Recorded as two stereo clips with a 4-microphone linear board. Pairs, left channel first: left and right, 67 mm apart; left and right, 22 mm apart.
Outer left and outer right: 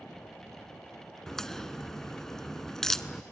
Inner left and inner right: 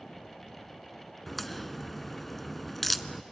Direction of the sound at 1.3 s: 5° left (ahead or behind).